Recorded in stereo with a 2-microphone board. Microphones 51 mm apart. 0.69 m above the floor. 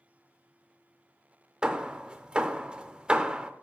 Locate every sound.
1.6 s hammering: 20° right (ahead or behind), 0.5 m